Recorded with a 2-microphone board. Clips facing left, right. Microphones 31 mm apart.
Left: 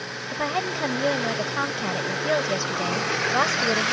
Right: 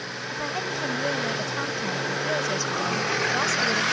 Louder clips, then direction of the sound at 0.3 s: Left 4 dB; 30° left (ahead or behind).